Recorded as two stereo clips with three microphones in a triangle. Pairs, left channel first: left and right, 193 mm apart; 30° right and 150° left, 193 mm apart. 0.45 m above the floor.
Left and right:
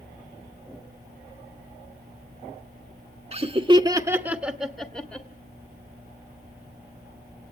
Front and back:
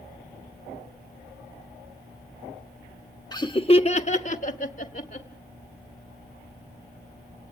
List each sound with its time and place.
3.3 s laughter: 80° right, 0.9 m; by 5.3 s 10° left, 1.4 m